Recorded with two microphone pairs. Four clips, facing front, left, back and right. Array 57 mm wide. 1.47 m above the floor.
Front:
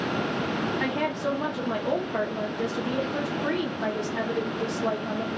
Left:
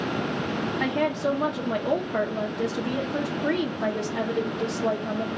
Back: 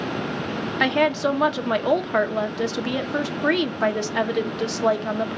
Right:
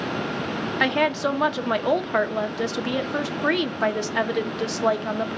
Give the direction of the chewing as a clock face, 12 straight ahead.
I don't hear chewing.